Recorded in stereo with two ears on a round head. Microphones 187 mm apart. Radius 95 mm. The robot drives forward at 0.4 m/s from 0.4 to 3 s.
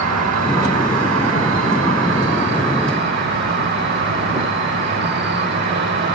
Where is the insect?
85° right, 1.3 m; by 6.2 s 55° right (ahead or behind), 1.6 m.